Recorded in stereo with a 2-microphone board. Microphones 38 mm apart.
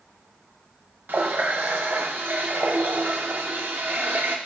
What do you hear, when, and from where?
1.1 s a running tap: 65° right (ahead or behind), 0.9 m